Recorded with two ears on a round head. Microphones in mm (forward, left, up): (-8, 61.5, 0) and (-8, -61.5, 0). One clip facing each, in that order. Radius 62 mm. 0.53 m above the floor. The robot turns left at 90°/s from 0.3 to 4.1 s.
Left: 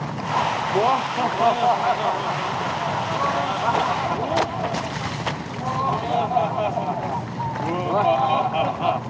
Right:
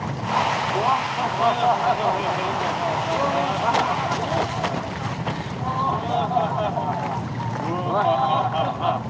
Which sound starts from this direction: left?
Laughter, at 0.7 s.